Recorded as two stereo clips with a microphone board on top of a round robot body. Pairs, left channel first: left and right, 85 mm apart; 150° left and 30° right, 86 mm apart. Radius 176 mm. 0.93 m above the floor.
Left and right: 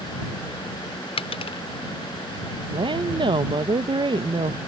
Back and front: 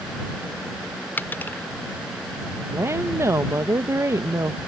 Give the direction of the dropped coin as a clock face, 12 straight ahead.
9 o'clock.